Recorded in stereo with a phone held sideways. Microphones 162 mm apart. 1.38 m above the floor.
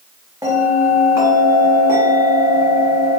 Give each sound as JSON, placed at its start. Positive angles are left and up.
{"t": 0.4, "sound": "a bell", "side_deg": -20, "distance_m": 1.2}